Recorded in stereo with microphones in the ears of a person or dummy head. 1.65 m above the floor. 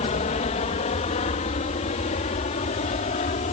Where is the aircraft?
35° left (ahead or behind).